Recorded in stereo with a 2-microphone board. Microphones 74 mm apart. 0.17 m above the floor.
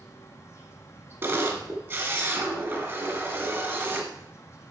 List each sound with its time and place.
0.0 s an insect: 40° left (ahead or behind), 1.8 m
1.2 s a camera shutter: 35° right (ahead or behind), 1.8 m